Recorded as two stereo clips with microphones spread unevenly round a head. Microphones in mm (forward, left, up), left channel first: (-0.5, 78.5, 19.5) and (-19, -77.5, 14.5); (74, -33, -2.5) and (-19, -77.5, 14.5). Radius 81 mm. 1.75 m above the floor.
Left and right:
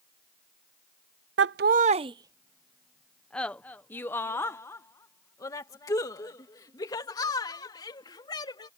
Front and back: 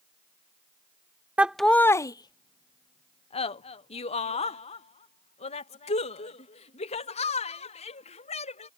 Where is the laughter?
80° right; by 8.7 s 15° left.